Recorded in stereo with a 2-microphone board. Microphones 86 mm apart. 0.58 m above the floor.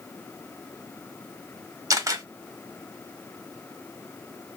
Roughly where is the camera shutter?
Right.